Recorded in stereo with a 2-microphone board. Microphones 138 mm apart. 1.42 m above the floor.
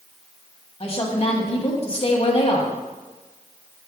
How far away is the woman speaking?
About 1.5 m.